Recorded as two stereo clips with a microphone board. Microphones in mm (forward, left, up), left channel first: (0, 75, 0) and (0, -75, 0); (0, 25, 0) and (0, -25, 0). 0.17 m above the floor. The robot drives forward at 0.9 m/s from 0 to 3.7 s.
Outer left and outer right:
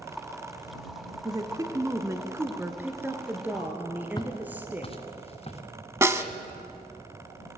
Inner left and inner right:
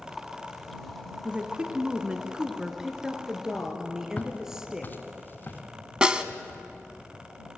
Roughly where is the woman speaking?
Right.